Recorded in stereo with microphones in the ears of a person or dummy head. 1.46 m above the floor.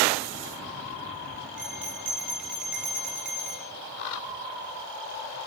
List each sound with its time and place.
1.6 s a bell: centre (ahead or behind), 1.4 m